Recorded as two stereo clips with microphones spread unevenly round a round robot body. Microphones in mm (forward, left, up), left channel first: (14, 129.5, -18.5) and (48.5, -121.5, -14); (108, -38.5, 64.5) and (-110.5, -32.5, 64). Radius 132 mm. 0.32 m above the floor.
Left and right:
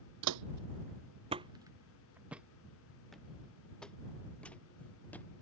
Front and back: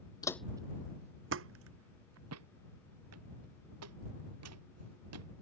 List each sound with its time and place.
0.2 s footsteps: 75° right; by 5.3 s straight behind